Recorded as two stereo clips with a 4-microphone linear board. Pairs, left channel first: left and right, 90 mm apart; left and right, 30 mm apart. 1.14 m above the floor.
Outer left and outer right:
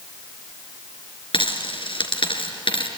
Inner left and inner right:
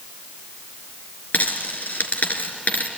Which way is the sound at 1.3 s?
75° left (ahead or behind).